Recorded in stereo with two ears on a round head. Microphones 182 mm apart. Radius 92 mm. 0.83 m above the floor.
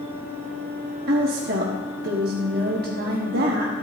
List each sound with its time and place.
1.1 s a woman speaking: 45° right (ahead or behind), 1.2 m